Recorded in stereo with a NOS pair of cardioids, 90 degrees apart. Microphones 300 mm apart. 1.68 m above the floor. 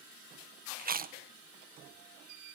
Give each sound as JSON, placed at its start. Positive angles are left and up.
{"t": 0.8, "sound": "chewing", "azimuth_deg": -30, "distance_m": 1.2}